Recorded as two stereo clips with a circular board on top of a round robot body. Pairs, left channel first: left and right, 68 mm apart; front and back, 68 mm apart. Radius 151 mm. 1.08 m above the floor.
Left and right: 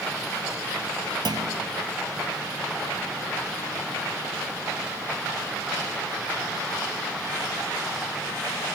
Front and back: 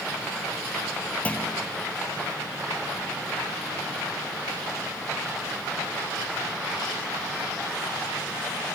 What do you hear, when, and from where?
1.2 s a clunk: 75° right